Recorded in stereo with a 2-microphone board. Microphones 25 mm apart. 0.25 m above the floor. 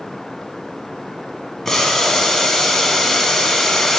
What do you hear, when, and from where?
1.6 s boiling: 25° left (ahead or behind), 1.1 m